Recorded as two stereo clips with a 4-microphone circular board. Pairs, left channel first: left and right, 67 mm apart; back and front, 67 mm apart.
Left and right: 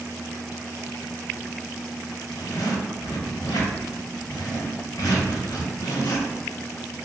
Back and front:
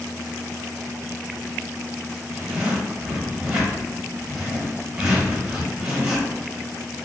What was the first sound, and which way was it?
A zipper, 80° left.